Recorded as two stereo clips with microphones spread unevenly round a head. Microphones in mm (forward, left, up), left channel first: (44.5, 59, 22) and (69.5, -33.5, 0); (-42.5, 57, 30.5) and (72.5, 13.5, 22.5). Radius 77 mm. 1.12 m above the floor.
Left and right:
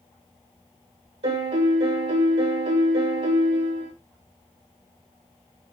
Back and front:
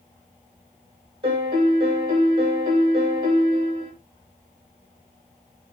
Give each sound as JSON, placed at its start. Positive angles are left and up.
{"t": 1.2, "sound": "a piano", "azimuth_deg": -75, "distance_m": 6.5}